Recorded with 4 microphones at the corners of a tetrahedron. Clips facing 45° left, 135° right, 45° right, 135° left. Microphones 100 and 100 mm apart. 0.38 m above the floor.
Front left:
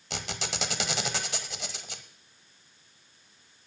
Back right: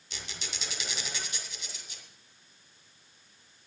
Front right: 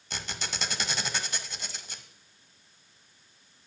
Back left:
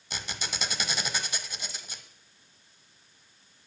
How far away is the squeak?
About 1.2 m.